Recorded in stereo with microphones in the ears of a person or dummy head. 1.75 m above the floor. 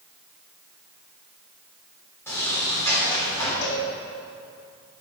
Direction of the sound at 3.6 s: 85° left.